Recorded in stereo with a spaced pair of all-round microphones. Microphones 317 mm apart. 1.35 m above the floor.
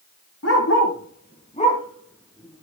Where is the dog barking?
50° left (ahead or behind), 3.5 m; by 2.6 s 5° right (ahead or behind), 3.5 m.